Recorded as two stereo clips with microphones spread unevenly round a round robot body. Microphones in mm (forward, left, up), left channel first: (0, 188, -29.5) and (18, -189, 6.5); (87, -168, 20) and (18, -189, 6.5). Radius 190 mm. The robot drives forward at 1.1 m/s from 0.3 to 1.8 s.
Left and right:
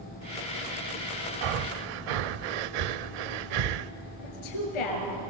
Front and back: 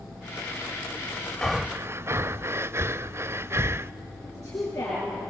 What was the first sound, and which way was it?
Breathing, 65° right.